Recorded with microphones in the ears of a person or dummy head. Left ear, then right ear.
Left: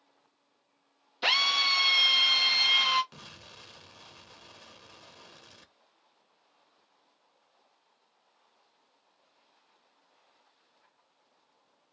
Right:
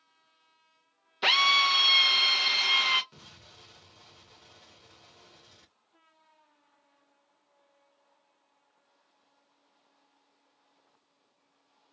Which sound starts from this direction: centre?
A drill, at 1.2 s.